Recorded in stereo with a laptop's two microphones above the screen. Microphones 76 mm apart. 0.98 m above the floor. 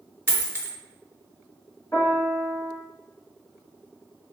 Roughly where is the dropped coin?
Right.